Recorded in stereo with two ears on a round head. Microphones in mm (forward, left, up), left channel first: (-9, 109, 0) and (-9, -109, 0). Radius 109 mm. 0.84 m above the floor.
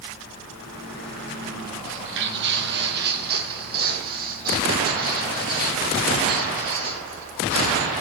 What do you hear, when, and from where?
1.9 s footsteps: 50° right (ahead or behind), 1.3 m; by 7.9 s 30° right (ahead or behind), 5.5 m